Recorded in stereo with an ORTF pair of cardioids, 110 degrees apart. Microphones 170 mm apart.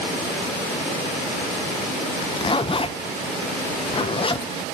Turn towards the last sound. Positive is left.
turn(degrees=35)